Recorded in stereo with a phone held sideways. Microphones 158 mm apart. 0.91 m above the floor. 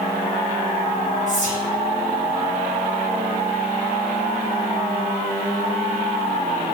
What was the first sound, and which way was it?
Whispering, 40° left (ahead or behind).